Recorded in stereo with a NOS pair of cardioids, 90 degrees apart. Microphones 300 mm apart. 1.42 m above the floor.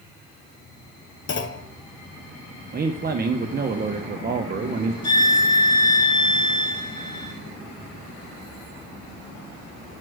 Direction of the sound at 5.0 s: 15° left.